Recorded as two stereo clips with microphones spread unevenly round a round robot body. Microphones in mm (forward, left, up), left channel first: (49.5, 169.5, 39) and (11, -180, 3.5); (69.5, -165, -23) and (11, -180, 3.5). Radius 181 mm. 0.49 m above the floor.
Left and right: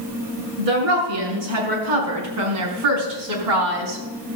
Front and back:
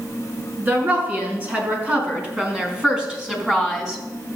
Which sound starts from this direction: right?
A woman speaking, at 0.6 s.